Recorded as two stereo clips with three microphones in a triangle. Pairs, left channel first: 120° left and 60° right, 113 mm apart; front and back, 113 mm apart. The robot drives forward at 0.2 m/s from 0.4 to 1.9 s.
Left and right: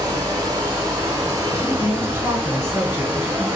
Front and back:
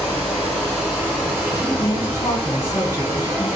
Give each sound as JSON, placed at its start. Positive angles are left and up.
{"t": 0.0, "sound": "running water", "azimuth_deg": -100, "distance_m": 1.6}
{"t": 1.5, "sound": "a woman speaking", "azimuth_deg": -20, "distance_m": 1.0}